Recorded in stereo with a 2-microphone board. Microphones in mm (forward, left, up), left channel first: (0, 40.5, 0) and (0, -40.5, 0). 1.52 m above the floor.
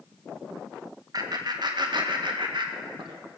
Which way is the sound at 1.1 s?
55° right (ahead or behind).